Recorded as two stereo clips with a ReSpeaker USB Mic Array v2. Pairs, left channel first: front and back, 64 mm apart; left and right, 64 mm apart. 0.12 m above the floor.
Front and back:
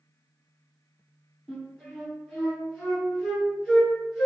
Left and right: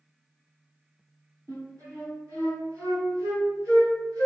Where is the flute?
75° right, 1.9 m.